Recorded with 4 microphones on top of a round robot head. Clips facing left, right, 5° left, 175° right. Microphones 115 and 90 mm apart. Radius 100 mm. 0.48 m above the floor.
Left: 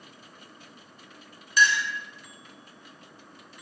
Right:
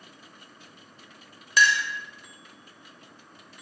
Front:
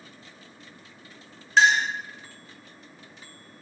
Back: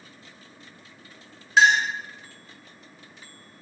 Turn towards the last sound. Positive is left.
turn(degrees=-90)